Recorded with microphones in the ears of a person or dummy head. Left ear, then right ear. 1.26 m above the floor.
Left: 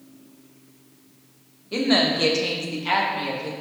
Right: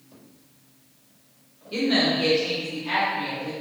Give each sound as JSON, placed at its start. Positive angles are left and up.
{"t": 1.7, "sound": "a woman speaking", "side_deg": 20, "distance_m": 0.6}